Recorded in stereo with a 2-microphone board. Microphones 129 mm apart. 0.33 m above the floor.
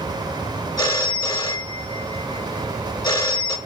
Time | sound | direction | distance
0.8 | a phone ringing | 30° left (ahead or behind) | 0.7 m